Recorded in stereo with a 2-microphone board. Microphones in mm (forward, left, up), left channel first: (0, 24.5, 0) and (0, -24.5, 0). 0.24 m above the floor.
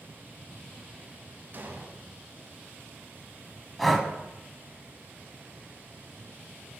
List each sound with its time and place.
1.5 s an explosion: 45° right (ahead or behind), 0.7 m
3.8 s breathing: 5° left (ahead or behind), 0.6 m